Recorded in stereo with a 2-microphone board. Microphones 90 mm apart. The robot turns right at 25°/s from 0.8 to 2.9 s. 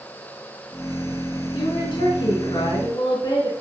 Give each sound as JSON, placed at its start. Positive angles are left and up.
{"t": 1.5, "sound": "a woman speaking", "azimuth_deg": 90, "distance_m": 3.5}